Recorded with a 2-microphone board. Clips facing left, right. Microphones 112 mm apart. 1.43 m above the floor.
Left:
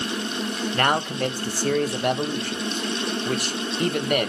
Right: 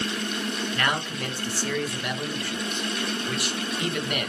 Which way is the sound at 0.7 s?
45° left (ahead or behind).